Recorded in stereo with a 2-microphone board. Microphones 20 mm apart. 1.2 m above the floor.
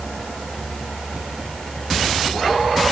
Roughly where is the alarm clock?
No alarm clock in this recording.